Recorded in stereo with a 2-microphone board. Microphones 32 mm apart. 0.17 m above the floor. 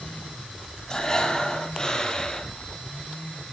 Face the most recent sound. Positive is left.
turn(degrees=25)  # may be behind; listen again after turning